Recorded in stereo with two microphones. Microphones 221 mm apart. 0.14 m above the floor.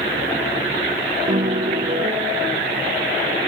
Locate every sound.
1.3 s a piano: 40° right (ahead or behind)